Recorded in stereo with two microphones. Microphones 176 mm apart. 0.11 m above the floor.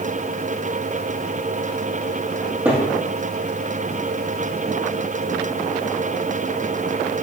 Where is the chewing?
I don't hear chewing.